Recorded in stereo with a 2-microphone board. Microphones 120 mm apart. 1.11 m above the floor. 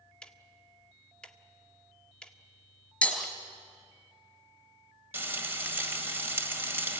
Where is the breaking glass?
5° left (ahead or behind), 4 m.